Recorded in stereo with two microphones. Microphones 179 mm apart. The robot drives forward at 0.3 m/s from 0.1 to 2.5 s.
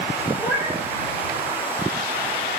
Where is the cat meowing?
5° right (ahead or behind), 6.5 m.